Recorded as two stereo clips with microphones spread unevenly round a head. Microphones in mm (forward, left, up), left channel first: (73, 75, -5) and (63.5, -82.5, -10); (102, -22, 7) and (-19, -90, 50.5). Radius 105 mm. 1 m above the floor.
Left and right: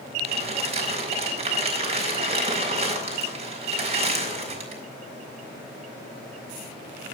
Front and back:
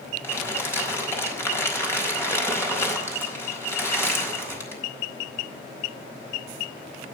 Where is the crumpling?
45° right, 4.5 m.